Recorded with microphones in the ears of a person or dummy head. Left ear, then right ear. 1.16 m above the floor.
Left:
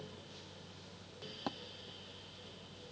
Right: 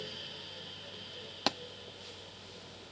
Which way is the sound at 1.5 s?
50° right (ahead or behind).